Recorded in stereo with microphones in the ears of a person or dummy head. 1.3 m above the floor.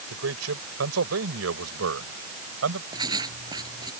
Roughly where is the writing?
Centre.